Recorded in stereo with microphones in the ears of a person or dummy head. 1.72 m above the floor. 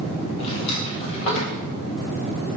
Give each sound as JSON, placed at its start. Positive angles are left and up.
{"t": 0.4, "sound": "a drawer", "side_deg": 35, "distance_m": 2.0}